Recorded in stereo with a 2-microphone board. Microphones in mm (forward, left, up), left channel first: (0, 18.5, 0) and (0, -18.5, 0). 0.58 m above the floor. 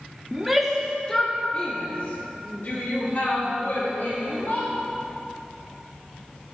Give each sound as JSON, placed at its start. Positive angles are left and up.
{"t": 0.3, "sound": "a shout", "side_deg": -10, "distance_m": 0.8}